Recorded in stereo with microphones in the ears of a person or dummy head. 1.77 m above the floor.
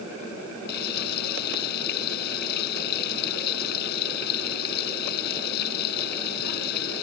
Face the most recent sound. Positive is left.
turn(degrees=60)  # may be behind; listen again after turning